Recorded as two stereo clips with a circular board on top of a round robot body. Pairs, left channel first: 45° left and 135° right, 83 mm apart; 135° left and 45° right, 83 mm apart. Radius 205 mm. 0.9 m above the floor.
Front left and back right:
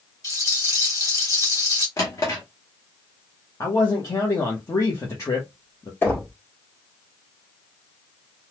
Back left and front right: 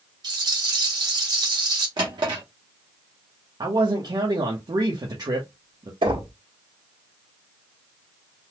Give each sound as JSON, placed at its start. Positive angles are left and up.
{"t": 0.2, "sound": "a rattle", "azimuth_deg": -5, "distance_m": 2.5}
{"t": 2.0, "sound": "a drawer", "azimuth_deg": -10, "distance_m": 0.6}
{"t": 3.6, "sound": "a man speaking", "azimuth_deg": -10, "distance_m": 1.1}
{"t": 6.0, "sound": "knocking", "azimuth_deg": -25, "distance_m": 1.7}